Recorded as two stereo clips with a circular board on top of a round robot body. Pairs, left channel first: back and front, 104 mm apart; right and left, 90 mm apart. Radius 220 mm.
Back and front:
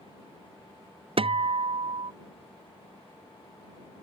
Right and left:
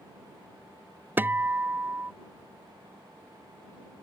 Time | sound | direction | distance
1.2 | a guitar | 20° left | ?